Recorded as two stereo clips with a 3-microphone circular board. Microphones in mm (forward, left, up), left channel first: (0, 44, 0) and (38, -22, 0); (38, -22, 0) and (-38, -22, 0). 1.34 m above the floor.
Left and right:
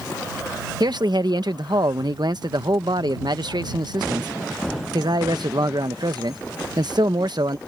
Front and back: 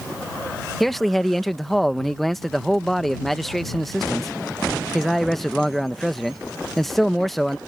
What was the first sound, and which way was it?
A man speaking, 85° right.